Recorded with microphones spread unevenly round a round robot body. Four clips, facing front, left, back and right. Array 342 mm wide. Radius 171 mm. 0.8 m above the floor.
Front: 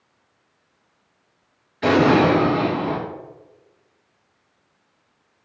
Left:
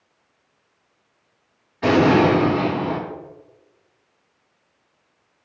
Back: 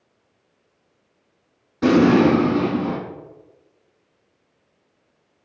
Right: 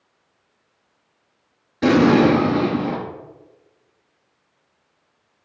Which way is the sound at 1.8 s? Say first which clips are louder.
Right 1 dB, back 1 dB; 135° right.